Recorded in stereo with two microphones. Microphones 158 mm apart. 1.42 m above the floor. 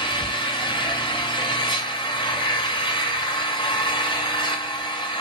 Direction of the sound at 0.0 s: 30° left (ahead or behind).